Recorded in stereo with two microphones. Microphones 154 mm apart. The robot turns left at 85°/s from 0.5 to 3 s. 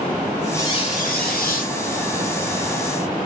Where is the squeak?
165° left, 3.5 m; by 1.7 s 60° left, 3.5 m.